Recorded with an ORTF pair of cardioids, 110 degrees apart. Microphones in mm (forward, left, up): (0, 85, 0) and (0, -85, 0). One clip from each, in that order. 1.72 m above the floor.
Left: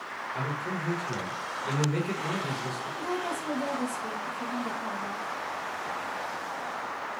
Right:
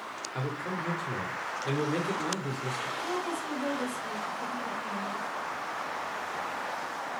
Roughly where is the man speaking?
Ahead.